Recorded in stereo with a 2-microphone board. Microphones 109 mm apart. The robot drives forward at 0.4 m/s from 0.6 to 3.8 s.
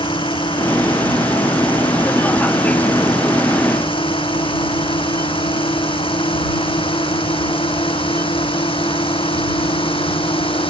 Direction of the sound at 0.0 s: 50° left (ahead or behind).